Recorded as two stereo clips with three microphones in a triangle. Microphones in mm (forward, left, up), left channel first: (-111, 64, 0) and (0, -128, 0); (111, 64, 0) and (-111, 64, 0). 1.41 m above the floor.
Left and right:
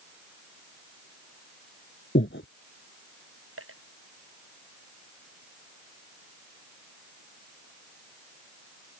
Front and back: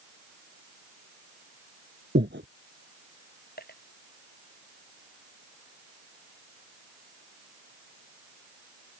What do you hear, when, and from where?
2.1 s breathing: 145° left
3.6 s a dropped coin: 45° right